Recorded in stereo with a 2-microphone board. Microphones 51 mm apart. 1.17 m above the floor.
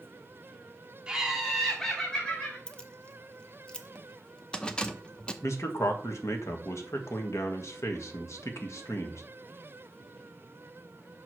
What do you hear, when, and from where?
1.1 s laughter: 15° right (ahead or behind), 2 m; by 2.6 s 30° left (ahead or behind), 2.5 m
2.7 s keys jangling: 15° left (ahead or behind), 0.7 m
5.4 s a man speaking: 65° left (ahead or behind), 1.3 m